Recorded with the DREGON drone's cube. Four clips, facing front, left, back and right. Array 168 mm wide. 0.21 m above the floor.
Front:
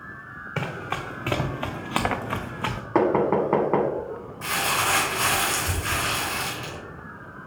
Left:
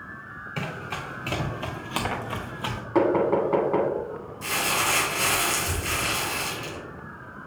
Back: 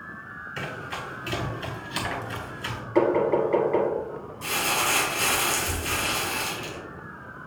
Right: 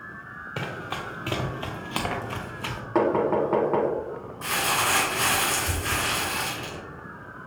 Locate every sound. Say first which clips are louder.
0.6 s running footsteps: right 1 dB, front 5 dB; 20° right, 1.7 m; by 2.8 s 20° left, 1.1 m
3.0 s knocking: left 1 dB, front 1 dB; 5° right, 1.1 m
4.4 s crumpling: right 1 dB, front 2 dB; 40° right, 2.5 m